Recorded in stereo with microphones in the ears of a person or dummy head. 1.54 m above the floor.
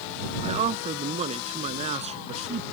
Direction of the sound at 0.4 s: 35° right (ahead or behind).